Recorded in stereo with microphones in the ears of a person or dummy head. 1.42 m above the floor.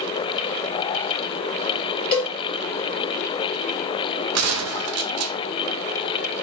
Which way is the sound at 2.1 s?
25° left (ahead or behind).